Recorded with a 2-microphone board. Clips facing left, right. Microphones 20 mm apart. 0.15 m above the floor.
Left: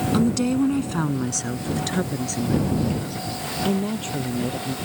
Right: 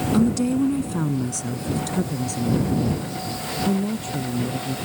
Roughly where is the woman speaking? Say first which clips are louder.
Right 1 dB; left.